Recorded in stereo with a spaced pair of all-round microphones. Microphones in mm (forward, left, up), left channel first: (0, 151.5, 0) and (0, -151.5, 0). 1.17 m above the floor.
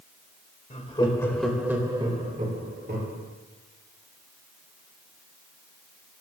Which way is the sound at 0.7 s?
25° left (ahead or behind).